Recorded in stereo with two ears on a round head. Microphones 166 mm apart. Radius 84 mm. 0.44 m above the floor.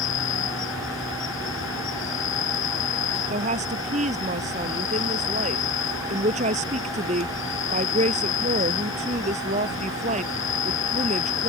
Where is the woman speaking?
40° right (ahead or behind).